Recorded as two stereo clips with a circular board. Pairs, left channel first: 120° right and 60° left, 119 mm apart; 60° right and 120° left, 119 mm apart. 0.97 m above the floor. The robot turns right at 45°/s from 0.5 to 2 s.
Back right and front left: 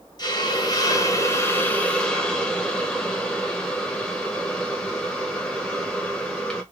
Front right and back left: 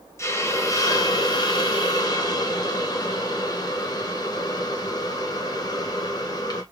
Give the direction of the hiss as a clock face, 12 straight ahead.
4 o'clock.